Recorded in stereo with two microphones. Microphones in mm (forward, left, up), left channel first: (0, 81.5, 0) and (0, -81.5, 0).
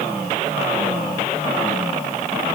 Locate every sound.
Only background noise.